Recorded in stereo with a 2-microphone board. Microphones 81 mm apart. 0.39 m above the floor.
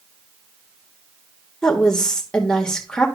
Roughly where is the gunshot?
I don't hear a gunshot.